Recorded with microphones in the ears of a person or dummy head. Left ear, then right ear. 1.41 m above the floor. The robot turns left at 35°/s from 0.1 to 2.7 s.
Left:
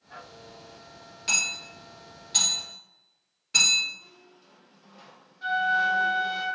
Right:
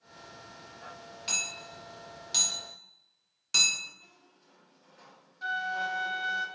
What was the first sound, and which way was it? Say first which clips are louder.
Hammering: left 7 dB; 5° right (ahead or behind).